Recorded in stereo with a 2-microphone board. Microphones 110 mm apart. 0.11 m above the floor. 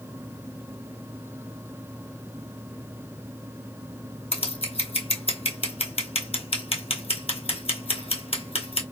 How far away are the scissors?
About 0.8 m.